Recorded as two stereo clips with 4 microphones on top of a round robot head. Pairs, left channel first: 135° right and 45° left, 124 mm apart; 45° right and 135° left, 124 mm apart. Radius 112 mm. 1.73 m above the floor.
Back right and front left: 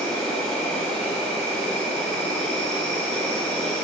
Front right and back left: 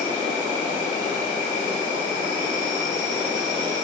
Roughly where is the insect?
Ahead right.